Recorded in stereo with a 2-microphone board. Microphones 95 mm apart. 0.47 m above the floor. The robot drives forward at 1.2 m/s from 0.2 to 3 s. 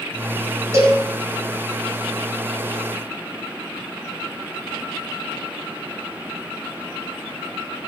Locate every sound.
0.7 s a cowbell: 30° right (ahead or behind), 4 m; by 1.0 s 35° right (ahead or behind), 3.5 m